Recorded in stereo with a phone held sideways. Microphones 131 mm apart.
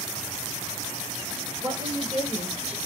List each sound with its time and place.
1.6 s a woman speaking: 40° right (ahead or behind), 3 m; by 2.8 s 55° right (ahead or behind), 1.6 m